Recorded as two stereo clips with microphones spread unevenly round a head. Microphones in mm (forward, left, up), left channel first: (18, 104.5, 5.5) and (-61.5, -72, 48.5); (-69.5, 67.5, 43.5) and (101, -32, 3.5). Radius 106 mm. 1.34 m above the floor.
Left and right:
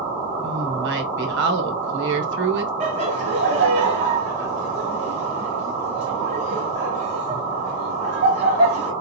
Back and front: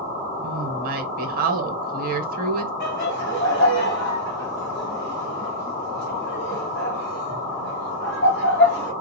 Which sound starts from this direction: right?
A woman speaking, at 0.4 s.